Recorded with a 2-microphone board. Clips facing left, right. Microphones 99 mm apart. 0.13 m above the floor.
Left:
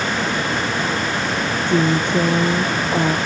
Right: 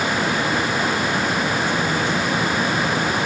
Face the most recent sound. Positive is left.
turn(degrees=65)  # may be behind; listen again after turning